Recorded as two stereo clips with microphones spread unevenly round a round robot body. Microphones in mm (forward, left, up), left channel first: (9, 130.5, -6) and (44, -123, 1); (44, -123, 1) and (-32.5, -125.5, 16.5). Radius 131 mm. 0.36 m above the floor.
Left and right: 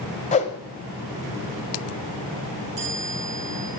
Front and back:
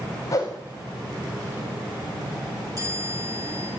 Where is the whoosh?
40° left, 1.1 m.